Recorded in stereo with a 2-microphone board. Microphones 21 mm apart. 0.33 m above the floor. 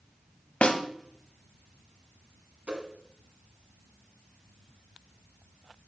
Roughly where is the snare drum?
Left.